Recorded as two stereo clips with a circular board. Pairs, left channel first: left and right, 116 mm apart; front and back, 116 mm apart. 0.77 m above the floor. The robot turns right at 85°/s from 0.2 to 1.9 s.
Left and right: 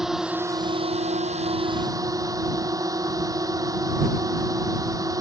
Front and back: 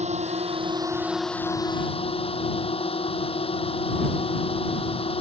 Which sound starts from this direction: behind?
A drone, at 0.0 s.